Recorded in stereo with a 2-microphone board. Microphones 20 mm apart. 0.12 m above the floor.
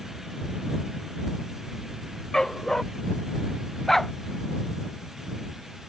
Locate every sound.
2.3 s a dog barking: 25° left (ahead or behind)
3.9 s a dog barking: 15° left (ahead or behind)